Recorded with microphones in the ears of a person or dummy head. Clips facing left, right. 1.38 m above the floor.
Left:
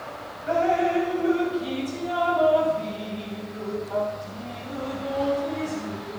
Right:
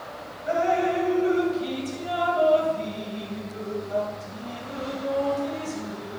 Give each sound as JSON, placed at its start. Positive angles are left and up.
{"t": 0.5, "sound": "dripping", "side_deg": -35, "distance_m": 3.0}